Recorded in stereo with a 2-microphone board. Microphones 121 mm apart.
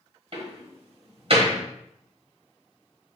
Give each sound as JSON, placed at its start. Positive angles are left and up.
{"t": 0.3, "sound": "a door slam", "side_deg": -50, "distance_m": 1.1}